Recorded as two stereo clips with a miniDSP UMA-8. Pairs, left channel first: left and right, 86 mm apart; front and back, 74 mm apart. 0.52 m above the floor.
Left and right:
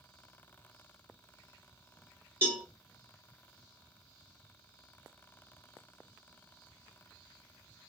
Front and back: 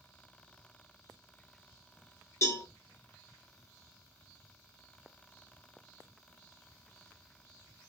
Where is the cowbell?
35° right, 0.9 m.